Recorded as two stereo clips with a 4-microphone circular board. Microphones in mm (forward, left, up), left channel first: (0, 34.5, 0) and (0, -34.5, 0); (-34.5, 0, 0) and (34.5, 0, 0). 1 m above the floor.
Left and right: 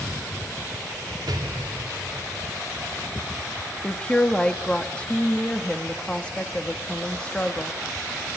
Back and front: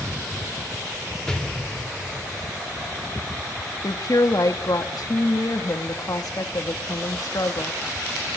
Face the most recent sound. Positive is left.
turn(degrees=165)